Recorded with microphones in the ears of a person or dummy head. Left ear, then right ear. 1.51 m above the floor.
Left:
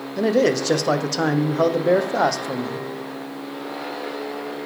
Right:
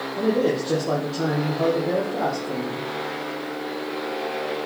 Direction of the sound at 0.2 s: 65° left (ahead or behind).